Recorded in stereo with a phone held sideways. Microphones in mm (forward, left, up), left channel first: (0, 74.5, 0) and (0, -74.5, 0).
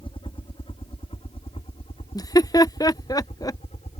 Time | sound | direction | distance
0.0 | a helicopter | 35° left (ahead or behind) | ?
2.1 | laughter | 25° left (ahead or behind) | ?